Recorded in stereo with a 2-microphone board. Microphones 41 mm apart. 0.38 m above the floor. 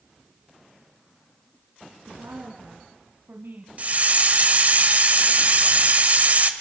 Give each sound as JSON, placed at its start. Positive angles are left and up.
{"t": 2.1, "sound": "a woman speaking", "side_deg": -80, "distance_m": 3.5}
{"t": 3.8, "sound": "a hiss", "side_deg": -40, "distance_m": 1.4}